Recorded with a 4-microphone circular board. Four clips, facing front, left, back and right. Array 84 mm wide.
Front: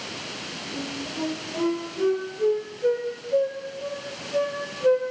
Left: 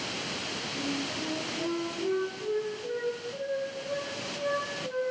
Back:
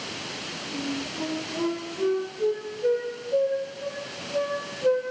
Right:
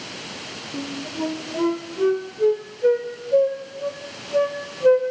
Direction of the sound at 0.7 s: 85° right.